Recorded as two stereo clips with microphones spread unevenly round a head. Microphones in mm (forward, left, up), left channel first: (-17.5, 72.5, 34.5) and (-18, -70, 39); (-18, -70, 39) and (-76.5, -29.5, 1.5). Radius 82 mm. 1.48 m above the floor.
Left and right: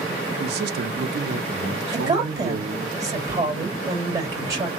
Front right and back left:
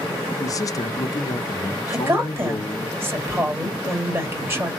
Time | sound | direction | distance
0.4 | a man speaking | 70° right | 0.6 m
1.9 | a woman speaking | 155° right | 1.6 m